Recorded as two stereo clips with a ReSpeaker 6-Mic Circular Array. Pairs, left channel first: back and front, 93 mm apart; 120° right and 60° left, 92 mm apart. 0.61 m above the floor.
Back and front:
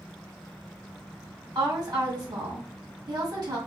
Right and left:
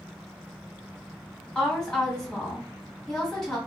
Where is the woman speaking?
35° right, 1.5 m.